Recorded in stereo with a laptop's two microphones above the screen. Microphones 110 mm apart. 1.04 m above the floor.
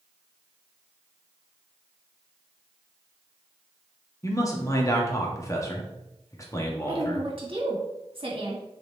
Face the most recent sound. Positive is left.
turn(degrees=-55)  # may be behind; listen again after turning